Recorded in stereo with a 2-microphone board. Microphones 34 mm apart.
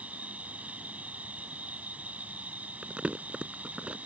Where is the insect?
40° right (ahead or behind).